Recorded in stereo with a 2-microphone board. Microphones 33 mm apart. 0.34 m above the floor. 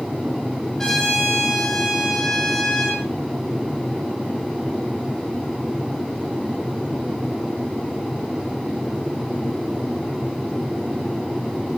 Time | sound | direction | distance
0.8 | a trumpet | 15° left (ahead or behind) | 9 m